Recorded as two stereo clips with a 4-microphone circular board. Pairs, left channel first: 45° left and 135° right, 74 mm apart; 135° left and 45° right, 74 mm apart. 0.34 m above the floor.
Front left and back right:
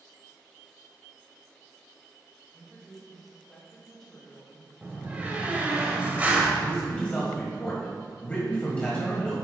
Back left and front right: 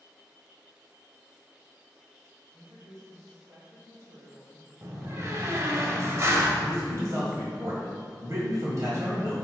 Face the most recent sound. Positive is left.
turn(degrees=-20)